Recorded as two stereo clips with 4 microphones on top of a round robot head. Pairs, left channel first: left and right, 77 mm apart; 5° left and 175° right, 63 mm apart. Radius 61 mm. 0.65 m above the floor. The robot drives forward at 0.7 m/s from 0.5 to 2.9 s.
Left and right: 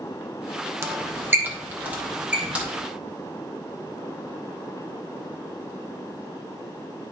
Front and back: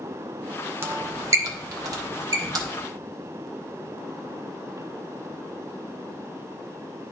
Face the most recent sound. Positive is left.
turn(degrees=-165)